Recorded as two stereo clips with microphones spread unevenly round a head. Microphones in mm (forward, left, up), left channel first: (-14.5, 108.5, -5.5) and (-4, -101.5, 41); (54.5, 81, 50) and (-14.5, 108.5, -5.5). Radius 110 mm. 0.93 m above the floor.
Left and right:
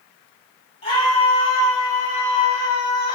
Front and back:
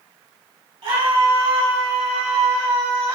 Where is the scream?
160° left, 9 m; by 3.1 s 165° left, 7 m.